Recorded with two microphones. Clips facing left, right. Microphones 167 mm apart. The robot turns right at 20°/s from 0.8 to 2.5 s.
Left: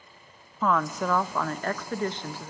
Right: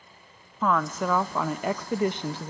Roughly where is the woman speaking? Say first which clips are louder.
Even; behind.